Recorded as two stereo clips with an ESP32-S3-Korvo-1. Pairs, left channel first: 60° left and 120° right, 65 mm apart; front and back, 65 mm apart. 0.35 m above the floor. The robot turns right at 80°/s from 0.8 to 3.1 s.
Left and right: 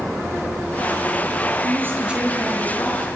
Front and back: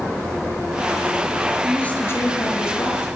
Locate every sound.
1.6 s a woman speaking: 85° right, 5.5 m; by 3.1 s 30° left, 5.5 m